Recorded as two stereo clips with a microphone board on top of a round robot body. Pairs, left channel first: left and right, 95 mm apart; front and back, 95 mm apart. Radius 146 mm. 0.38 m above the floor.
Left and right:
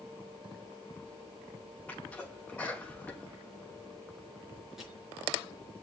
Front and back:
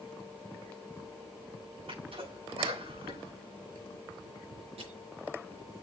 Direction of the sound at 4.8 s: 175° right.